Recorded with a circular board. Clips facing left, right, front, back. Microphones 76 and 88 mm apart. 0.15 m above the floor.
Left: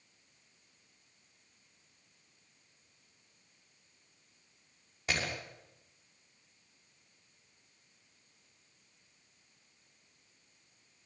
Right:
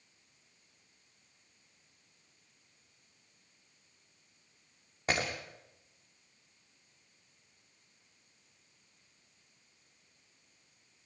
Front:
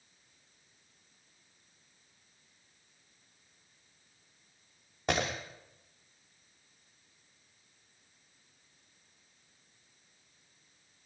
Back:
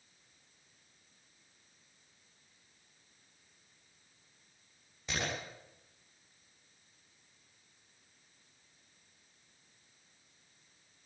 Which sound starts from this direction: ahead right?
Breaking glass, at 5.1 s.